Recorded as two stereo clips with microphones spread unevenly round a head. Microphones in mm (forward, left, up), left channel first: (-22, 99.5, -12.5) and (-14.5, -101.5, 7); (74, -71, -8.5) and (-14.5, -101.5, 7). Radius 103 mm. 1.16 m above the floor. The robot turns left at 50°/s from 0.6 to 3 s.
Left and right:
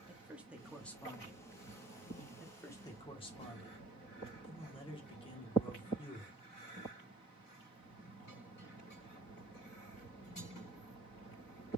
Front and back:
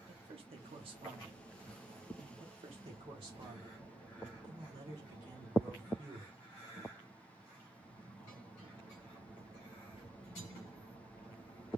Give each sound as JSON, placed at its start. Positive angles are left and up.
{"t": 0.1, "sound": "a man speaking", "azimuth_deg": -175, "distance_m": 0.9}
{"t": 2.4, "sound": "a man speaking", "azimuth_deg": 180, "distance_m": 1.2}